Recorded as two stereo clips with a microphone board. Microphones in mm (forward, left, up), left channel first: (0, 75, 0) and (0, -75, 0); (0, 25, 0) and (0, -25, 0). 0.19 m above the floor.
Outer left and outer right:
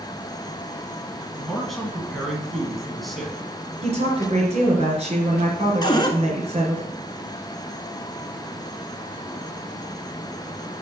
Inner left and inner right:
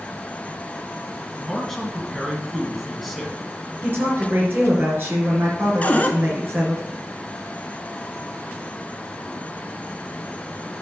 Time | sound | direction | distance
1.4 | a man speaking | centre (ahead or behind) | 2 m
3.8 | a woman speaking | 45° right (ahead or behind) | 3.5 m
5.8 | a cupboard door | 30° left (ahead or behind) | 1.0 m